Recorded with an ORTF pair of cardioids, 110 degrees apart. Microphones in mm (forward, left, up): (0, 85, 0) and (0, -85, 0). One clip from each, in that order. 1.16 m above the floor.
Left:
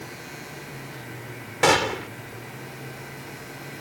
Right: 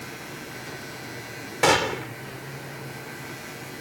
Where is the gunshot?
10° left.